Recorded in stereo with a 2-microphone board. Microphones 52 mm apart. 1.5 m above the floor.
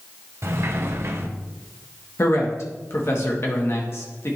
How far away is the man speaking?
About 1.4 m.